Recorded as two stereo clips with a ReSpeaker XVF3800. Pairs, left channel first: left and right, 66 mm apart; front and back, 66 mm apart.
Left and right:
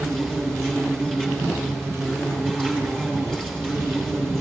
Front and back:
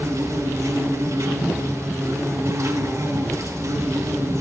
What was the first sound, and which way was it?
An insect, 170° left.